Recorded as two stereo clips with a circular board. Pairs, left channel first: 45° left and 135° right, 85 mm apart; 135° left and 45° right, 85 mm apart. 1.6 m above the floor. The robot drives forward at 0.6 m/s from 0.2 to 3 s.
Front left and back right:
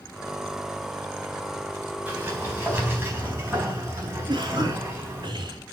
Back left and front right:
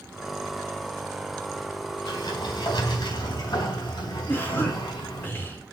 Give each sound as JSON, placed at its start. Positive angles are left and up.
{"t": 2.1, "sound": "a sliding door", "azimuth_deg": 160, "distance_m": 4.0}
{"t": 4.3, "sound": "a cough", "azimuth_deg": -160, "distance_m": 4.0}